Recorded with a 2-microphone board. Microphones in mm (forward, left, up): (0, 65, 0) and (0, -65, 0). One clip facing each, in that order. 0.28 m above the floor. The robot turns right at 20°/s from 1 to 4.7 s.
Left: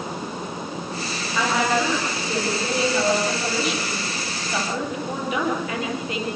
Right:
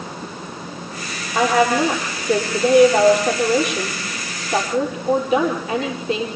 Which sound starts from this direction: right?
A woman speaking, at 1.4 s.